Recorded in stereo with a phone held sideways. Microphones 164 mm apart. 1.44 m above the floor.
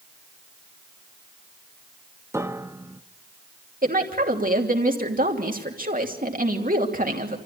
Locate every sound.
2.3 s a piano: 15° right (ahead or behind), 0.9 m
3.8 s a woman speaking: 60° right (ahead or behind), 3 m